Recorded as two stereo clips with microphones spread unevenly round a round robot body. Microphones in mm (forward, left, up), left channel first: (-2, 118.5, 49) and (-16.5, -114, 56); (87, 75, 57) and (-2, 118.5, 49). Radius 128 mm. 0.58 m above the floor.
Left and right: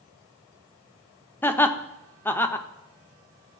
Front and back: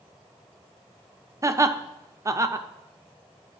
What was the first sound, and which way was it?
Laughter, 160° left.